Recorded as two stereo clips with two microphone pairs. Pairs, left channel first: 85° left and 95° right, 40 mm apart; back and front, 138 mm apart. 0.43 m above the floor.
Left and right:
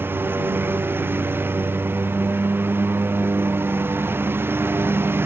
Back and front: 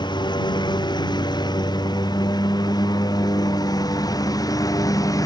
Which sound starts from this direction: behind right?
A lawn mower, at 0.0 s.